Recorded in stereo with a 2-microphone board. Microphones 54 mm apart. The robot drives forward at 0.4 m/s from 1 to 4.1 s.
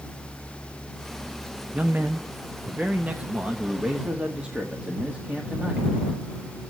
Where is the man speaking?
40° right (ahead or behind), 0.7 m; by 5.9 s 20° right (ahead or behind), 1.3 m.